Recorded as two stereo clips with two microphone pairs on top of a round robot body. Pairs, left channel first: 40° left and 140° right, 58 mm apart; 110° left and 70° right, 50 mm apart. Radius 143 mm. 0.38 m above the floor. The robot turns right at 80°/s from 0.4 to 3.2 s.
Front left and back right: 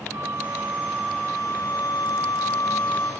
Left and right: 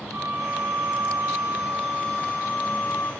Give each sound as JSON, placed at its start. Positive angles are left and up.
{"t": 0.1, "sound": "a flute", "azimuth_deg": -100, "distance_m": 3.0}